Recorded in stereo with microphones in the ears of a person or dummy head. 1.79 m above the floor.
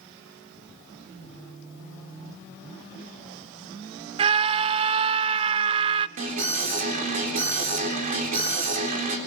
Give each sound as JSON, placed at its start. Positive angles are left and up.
{"t": 4.2, "sound": "a scream", "side_deg": -30, "distance_m": 0.7}
{"t": 6.2, "sound": "an alarm", "side_deg": -45, "distance_m": 3.5}